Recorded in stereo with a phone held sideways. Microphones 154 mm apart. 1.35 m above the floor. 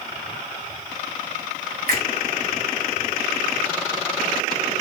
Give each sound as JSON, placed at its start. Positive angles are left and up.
{"t": 1.9, "sound": "a finger snap", "side_deg": -75, "distance_m": 2.5}